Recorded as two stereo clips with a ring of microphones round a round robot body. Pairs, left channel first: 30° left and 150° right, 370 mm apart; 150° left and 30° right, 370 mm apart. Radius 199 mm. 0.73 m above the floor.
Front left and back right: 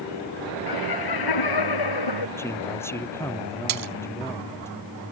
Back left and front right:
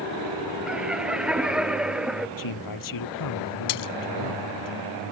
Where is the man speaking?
115° left.